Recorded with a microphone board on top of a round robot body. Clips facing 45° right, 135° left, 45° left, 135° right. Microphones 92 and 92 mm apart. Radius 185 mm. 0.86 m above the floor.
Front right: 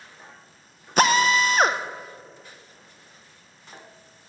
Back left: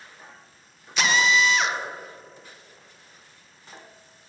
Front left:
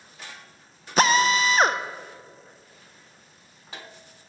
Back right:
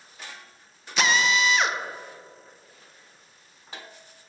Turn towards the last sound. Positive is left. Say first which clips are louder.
# front right 3 dB, front left 4 dB
turn(degrees=0)